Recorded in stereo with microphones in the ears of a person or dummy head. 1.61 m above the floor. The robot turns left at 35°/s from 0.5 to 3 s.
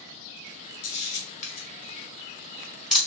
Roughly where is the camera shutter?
Left.